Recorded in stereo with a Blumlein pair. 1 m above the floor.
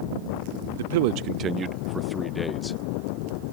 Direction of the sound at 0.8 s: 60° right.